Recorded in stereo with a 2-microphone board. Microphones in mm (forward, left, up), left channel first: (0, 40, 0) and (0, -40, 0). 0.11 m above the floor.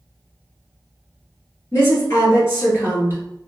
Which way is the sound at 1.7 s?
35° left (ahead or behind).